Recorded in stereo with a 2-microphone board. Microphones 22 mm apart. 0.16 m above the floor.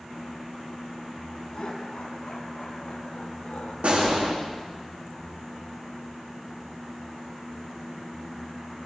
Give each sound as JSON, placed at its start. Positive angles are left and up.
{"t": 1.5, "sound": "laughter", "side_deg": 65, "distance_m": 5.0}
{"t": 3.8, "sound": "a gunshot", "side_deg": -70, "distance_m": 9.0}